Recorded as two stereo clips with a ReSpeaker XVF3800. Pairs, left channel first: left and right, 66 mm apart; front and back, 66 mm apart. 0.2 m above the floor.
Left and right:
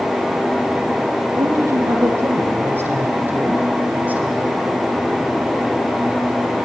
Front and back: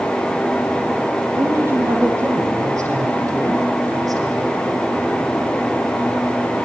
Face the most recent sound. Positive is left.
turn(degrees=-160)